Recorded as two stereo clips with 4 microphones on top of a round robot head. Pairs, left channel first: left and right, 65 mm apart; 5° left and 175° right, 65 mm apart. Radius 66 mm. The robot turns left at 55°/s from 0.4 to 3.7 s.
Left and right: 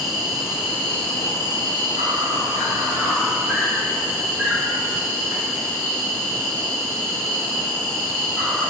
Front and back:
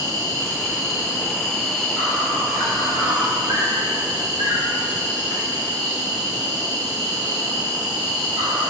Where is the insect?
5° right, 6 m; by 8.7 s 175° left, 6 m.